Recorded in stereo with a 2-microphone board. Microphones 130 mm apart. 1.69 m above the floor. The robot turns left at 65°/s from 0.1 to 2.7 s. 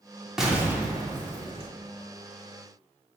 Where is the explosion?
5° right, 0.8 m; by 1.7 s 90° right, 0.8 m.